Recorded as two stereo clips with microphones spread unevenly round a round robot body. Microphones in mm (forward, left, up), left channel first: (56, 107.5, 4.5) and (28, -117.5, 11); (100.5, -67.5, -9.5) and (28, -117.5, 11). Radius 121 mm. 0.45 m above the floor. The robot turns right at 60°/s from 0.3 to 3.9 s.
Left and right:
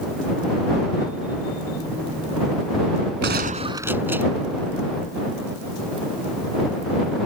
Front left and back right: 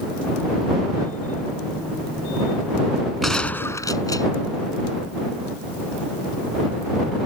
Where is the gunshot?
55° right; by 4.3 s 15° right.